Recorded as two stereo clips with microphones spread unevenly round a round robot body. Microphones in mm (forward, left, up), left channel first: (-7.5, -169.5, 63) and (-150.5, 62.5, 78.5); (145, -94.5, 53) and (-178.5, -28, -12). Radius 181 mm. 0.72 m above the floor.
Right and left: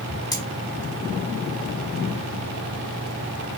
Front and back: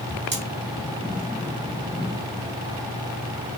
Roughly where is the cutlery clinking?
Behind right.